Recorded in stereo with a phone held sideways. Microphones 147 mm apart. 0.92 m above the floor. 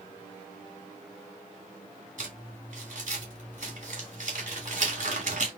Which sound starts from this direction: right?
Crumpling, at 2.2 s.